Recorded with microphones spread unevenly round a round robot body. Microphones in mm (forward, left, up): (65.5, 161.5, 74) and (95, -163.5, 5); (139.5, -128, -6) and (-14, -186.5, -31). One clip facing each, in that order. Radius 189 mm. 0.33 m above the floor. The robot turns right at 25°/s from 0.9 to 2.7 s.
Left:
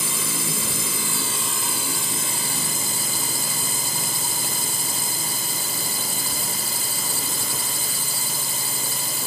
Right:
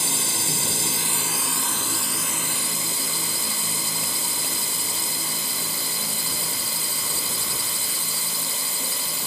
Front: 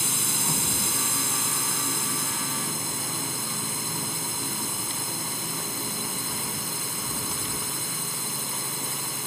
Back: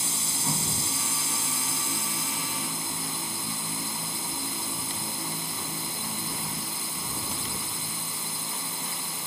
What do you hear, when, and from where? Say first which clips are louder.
0.0 s a drone: left 1 dB, front 2 dB; 15° left; by 9.3 s 60° left